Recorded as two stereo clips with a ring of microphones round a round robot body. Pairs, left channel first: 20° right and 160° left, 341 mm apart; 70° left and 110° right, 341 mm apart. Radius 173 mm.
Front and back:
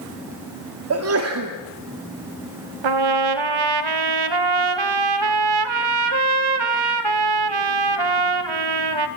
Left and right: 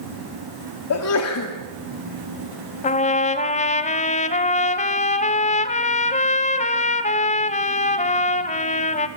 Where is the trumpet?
140° left, 1.6 m.